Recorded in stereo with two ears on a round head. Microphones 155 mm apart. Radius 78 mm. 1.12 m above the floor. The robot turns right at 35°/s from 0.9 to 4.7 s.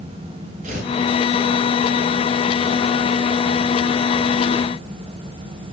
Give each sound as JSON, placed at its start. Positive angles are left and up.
{"t": 0.6, "sound": "tearing paper", "side_deg": -45, "distance_m": 6.0}